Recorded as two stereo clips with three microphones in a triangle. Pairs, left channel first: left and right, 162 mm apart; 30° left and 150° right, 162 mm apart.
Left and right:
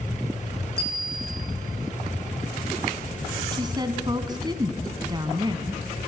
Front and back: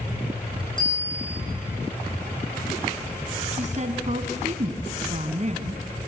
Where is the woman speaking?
145° right, 2 m.